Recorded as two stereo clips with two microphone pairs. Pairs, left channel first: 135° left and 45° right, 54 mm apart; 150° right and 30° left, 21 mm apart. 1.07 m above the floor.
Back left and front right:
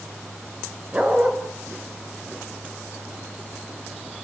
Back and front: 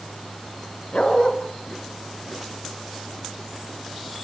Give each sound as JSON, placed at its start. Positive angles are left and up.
{"t": 0.9, "sound": "a dog barking", "azimuth_deg": -110, "distance_m": 4.0}